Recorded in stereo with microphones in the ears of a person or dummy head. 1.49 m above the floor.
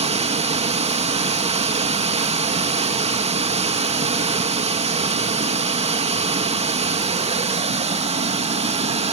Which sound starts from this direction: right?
Running water, at 0.0 s.